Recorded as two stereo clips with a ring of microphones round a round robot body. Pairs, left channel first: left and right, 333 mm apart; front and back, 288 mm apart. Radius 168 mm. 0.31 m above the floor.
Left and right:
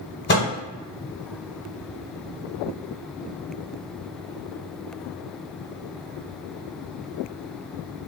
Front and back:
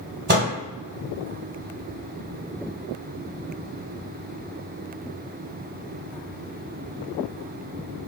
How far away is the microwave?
About 1.4 m.